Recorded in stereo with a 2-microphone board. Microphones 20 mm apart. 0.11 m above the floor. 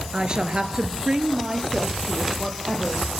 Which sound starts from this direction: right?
A woman speaking, at 0.1 s.